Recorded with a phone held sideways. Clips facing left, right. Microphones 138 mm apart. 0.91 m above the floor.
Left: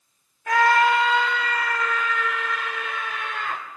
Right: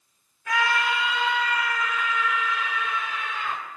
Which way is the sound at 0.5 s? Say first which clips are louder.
Left 7 dB; 50° left (ahead or behind).